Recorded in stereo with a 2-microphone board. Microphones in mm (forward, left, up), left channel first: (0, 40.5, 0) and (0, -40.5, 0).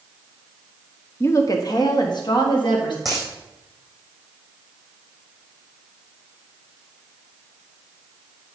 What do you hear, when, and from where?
1.2 s a woman speaking: 30° left (ahead or behind), 0.6 m; by 3.0 s 65° left (ahead or behind), 1.8 m
3.0 s a dropped coin: centre (ahead or behind), 3.5 m